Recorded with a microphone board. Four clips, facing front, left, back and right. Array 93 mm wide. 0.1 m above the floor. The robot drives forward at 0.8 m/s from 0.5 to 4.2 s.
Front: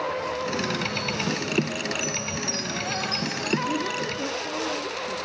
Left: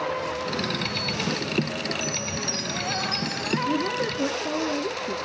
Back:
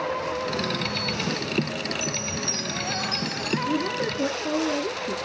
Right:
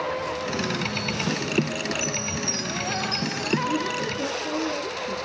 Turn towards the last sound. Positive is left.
turn(degrees=145)